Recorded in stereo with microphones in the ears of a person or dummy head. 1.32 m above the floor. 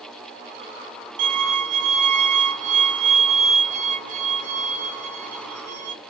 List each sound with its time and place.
1.2 s a violin: 45° right (ahead or behind), 2.5 m